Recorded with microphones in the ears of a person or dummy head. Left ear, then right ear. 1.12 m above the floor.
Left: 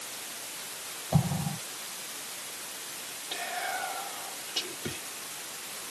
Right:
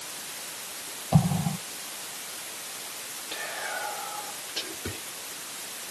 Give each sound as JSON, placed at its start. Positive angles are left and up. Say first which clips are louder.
{"t": 1.1, "sound": "an explosion", "louder": "right 4 dB", "side_deg": -25, "distance_m": 1.1}
{"t": 3.3, "sound": "whispering", "louder": "even", "side_deg": 20, "distance_m": 1.1}